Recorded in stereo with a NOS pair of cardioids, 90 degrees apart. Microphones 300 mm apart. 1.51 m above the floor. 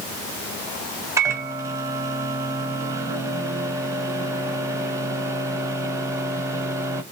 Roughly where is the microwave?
Ahead.